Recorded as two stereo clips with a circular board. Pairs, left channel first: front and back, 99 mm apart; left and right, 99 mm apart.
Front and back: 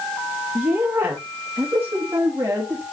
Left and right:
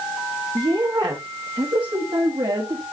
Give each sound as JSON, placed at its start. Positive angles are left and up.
{"t": 0.6, "sound": "a woman speaking", "azimuth_deg": -120, "distance_m": 1.1}